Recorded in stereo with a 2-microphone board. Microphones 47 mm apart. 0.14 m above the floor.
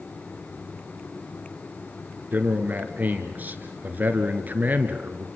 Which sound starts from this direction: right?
A man speaking, at 2.3 s.